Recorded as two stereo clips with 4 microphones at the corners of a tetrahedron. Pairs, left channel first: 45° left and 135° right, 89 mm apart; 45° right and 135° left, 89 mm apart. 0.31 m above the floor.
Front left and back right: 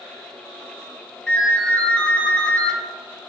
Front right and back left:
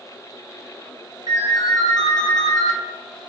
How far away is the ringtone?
About 1.7 m.